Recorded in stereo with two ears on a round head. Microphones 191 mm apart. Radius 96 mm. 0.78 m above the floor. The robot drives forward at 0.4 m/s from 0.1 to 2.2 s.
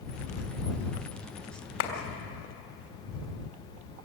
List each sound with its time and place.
1.8 s a clap: 75° left (ahead or behind), 2.5 m